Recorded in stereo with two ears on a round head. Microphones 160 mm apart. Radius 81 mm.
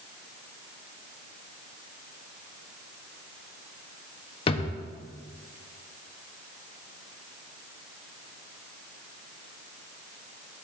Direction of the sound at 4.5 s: 30° left (ahead or behind).